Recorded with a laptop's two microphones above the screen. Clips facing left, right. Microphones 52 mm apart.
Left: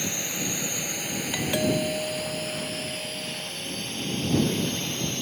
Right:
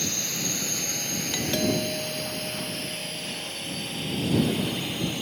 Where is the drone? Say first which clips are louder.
Left 1 dB; 15° left (ahead or behind); by 5.2 s 10° right (ahead or behind).